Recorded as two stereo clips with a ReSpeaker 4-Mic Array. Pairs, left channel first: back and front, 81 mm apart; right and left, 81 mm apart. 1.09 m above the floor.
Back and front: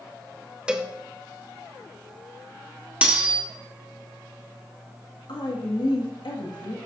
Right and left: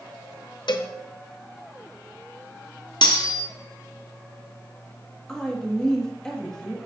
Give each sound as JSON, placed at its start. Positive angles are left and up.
{"t": 0.7, "sound": "a cowbell", "azimuth_deg": -80, "distance_m": 0.7}
{"t": 3.0, "sound": "cutlery clinking", "azimuth_deg": -75, "distance_m": 1.3}
{"t": 5.3, "sound": "a woman speaking", "azimuth_deg": -170, "distance_m": 1.7}